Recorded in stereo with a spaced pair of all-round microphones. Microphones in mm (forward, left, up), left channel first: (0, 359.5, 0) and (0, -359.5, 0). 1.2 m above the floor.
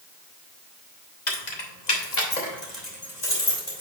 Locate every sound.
1.3 s keys jangling: 75° left (ahead or behind), 1.6 m; by 3.8 s 60° left (ahead or behind), 3 m